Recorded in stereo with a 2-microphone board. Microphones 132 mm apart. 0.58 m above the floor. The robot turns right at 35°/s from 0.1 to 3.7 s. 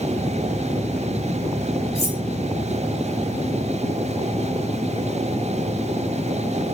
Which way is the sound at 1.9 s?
45° left (ahead or behind).